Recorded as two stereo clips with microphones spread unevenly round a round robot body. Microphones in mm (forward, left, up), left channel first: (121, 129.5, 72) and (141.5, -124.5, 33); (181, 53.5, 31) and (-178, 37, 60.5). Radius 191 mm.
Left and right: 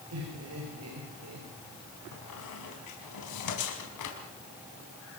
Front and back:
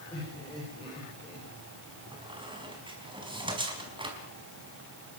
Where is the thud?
I don't hear a thud.